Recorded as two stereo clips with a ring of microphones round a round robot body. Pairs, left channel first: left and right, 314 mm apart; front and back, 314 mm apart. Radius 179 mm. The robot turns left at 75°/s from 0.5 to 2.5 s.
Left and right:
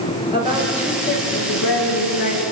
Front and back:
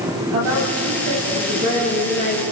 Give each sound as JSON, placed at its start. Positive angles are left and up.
{"t": 0.3, "sound": "a woman speaking", "azimuth_deg": -165, "distance_m": 8.5}